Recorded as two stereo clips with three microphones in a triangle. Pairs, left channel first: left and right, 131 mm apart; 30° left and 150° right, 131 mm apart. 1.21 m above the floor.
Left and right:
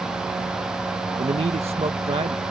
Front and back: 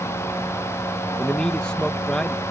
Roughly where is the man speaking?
Ahead right.